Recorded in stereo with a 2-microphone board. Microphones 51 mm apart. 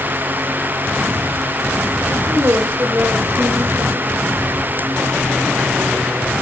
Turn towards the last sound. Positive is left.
turn(degrees=-50)  # may be behind; listen again after turning